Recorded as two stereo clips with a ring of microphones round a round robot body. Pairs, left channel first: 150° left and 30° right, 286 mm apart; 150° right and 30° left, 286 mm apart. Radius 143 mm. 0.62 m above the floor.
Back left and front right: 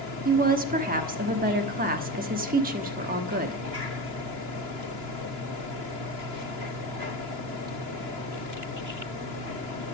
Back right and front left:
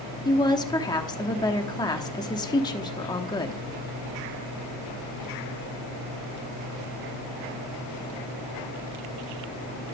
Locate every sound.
0.2 s a woman speaking: 80° right, 1.1 m